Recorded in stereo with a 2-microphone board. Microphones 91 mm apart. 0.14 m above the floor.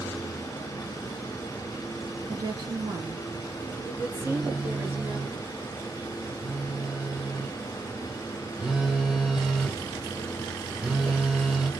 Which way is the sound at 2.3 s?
55° right (ahead or behind).